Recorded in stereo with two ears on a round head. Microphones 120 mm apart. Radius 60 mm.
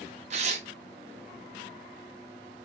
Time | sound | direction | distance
0.3 | tearing paper | 50° right (ahead or behind) | 0.6 m